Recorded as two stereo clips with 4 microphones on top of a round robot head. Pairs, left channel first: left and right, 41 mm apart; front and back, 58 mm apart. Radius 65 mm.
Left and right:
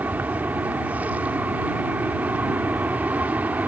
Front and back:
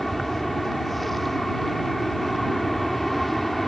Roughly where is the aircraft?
Right.